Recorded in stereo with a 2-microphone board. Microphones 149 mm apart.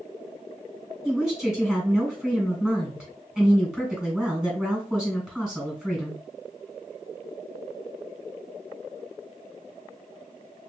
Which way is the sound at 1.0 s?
Centre (ahead or behind).